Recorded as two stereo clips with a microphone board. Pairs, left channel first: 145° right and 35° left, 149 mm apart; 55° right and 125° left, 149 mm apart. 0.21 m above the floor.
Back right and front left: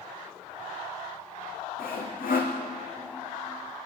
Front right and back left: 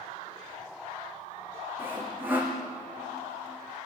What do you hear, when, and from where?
1.8 s sawing: 160° right, 4.5 m